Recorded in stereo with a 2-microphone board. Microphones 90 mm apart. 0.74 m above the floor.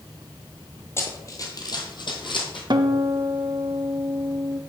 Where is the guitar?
55° right (ahead or behind), 0.5 m.